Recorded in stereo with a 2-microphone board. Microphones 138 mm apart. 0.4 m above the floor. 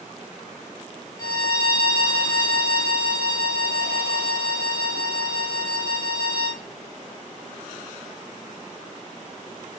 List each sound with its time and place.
1.2 s a violin: 25° left (ahead or behind), 1.9 m